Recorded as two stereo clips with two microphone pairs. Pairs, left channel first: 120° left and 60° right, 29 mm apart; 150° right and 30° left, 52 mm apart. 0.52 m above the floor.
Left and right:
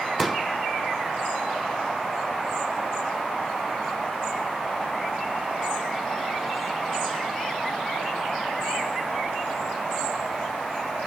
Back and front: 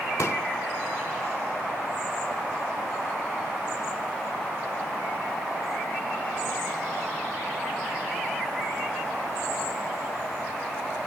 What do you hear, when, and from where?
0.2 s a pop: 145° right, 0.9 m